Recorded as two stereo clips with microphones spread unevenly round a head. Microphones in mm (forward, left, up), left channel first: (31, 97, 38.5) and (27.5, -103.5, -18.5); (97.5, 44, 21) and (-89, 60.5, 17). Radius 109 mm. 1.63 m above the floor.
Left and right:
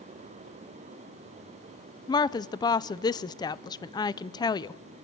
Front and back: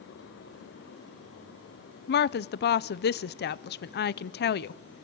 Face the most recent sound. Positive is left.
turn(degrees=25)